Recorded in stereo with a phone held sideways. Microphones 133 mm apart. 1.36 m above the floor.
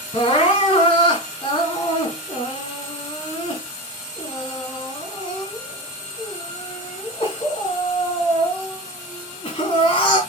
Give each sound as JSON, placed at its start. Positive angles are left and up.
{"t": 0.1, "sound": "crying", "side_deg": 45, "distance_m": 4.5}